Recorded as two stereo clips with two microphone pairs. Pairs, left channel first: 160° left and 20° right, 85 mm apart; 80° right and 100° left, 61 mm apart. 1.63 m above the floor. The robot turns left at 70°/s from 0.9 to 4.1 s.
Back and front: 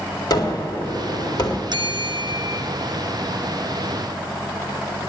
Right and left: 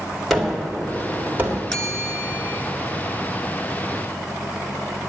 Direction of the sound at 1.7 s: 5° left.